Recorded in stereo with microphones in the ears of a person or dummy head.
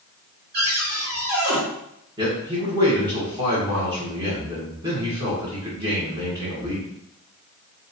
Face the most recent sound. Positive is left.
turn(degrees=-30)  # may be behind; listen again after turning